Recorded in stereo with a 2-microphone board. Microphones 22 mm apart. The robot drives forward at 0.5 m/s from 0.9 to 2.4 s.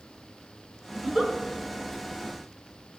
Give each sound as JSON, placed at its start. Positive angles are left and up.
{"t": 0.9, "sound": "a giggle", "side_deg": -20, "distance_m": 1.7}